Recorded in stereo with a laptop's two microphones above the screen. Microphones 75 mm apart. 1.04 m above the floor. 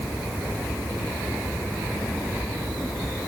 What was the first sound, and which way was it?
Only background noise.